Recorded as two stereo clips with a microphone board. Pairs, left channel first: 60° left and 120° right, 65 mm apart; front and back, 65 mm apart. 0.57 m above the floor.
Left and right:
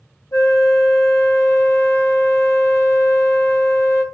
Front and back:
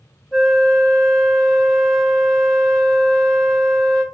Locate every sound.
0.3 s a flute: 80° left, 0.7 m